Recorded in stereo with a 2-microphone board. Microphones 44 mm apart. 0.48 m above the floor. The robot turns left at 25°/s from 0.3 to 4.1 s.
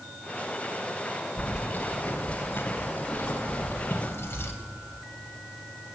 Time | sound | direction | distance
1.4 | keys jangling | 145° left | 2.0 m